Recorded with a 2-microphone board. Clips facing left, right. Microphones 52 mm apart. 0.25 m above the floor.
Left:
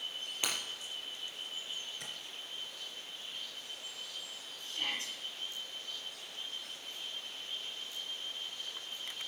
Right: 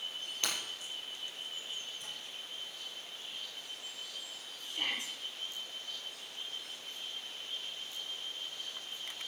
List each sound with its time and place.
0.4 s breaking glass: 15° left (ahead or behind), 4.5 m
2.0 s tapping: 70° left (ahead or behind), 3 m
4.6 s a shout: 20° right (ahead or behind), 6 m